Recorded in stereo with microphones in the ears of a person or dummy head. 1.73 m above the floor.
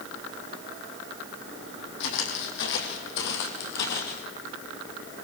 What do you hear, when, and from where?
2.0 s footsteps: 65° left (ahead or behind), 4.5 m; by 4.2 s 50° left (ahead or behind), 3 m